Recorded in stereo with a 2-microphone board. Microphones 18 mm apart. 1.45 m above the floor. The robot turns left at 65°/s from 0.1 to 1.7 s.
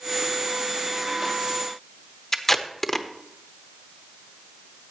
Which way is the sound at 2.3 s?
20° left (ahead or behind).